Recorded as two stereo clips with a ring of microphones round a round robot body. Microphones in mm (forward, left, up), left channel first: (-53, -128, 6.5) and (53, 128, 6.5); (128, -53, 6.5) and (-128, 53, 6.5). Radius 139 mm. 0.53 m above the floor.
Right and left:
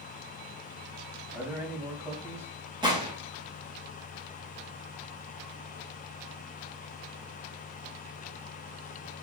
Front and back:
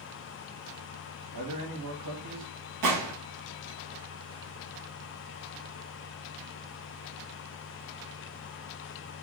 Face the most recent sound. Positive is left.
turn(degrees=140)